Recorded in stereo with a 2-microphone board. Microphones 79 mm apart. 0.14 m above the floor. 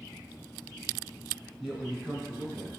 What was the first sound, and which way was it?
A man speaking, 5° right (ahead or behind).